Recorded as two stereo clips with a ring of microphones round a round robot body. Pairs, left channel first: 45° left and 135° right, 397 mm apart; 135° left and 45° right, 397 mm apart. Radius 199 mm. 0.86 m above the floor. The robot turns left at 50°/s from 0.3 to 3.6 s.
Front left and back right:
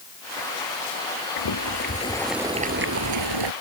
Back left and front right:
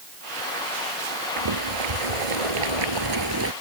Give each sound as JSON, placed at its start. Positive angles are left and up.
{"t": 1.4, "sound": "boiling", "azimuth_deg": 0}